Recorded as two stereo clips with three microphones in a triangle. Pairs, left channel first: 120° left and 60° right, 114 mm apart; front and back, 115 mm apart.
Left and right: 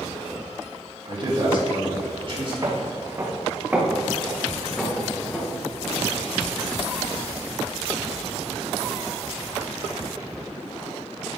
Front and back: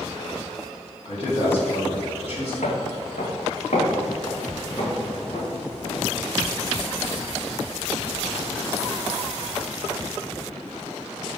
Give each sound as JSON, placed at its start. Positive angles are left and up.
{"t": 1.1, "sound": "a man speaking", "azimuth_deg": -25, "distance_m": 2.5}
{"t": 2.6, "sound": "footsteps", "azimuth_deg": -5, "distance_m": 1.3}